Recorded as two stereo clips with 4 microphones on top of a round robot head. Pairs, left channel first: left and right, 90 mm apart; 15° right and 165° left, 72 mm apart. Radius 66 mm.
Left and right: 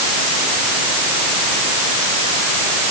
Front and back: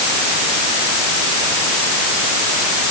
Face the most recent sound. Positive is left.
No sound to turn to.